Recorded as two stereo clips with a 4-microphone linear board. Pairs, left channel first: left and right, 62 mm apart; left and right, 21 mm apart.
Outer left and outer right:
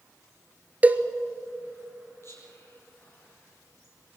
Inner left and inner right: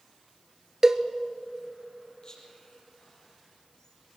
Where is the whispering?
45° left (ahead or behind), 5 m.